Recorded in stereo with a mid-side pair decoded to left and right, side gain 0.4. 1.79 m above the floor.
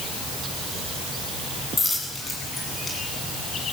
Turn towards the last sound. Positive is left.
turn(degrees=35)